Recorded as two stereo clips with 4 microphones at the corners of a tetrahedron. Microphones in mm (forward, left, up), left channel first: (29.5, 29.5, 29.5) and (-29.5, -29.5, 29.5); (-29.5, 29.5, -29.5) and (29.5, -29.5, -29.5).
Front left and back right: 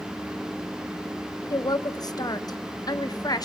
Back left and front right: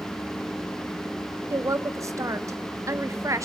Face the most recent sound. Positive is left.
turn(degrees=5)